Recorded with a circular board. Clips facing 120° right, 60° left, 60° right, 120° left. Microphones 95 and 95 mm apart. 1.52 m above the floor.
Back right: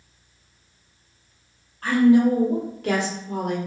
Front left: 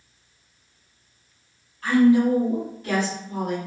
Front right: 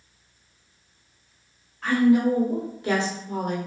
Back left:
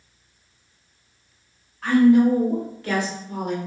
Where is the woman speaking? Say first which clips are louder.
Back right 1 dB, back left 4 dB; 150° right, 1.4 m; by 3.6 s 105° right, 0.9 m.